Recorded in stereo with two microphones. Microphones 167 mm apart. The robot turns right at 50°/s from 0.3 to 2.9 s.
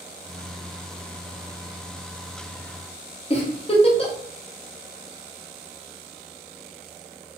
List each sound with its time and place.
3.3 s a giggle: 35° left (ahead or behind), 0.7 m